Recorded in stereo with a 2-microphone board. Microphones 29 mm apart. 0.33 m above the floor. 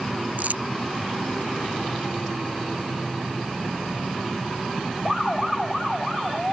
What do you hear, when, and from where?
0.4 s crumpling: 70° right (ahead or behind)